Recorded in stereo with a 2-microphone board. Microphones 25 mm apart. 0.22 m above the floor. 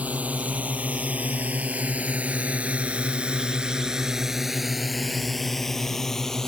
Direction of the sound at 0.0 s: 70° right (ahead or behind).